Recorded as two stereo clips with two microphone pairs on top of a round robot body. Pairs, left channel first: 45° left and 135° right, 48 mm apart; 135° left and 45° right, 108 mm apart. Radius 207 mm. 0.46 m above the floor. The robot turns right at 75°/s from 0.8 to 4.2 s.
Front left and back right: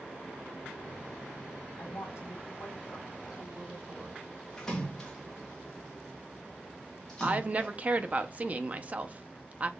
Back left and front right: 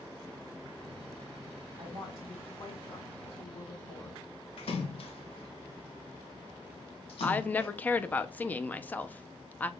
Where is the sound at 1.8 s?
20° left, 3.5 m; by 4.2 s 155° right, 3.5 m.